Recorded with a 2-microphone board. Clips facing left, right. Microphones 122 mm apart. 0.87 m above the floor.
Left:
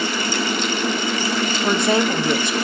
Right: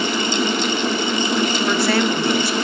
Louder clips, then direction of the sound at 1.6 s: Left 3 dB; 20° left (ahead or behind).